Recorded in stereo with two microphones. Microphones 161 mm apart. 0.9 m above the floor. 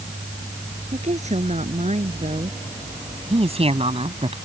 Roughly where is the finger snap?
I don't hear a finger snap.